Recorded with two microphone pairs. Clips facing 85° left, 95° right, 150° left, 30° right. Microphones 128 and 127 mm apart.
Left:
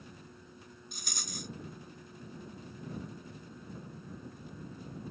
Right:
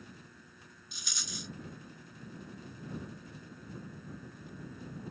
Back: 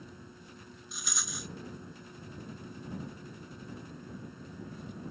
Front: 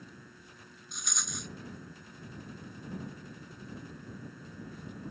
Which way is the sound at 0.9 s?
65° left.